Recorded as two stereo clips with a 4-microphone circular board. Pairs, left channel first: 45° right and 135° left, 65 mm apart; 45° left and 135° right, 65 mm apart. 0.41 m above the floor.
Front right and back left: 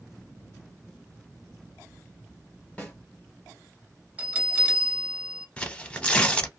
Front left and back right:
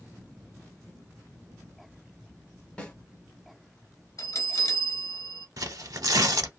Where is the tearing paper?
115° right, 0.6 m.